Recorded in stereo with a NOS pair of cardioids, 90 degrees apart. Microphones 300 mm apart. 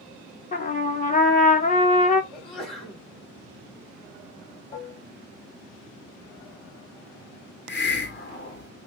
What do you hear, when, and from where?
0.5 s a trumpet: 25° left, 0.8 m
2.3 s a sneeze: 20° left, 1.1 m
4.7 s dishes clattering: 25° left, 1.2 m
7.7 s a hiss: 40° left, 0.9 m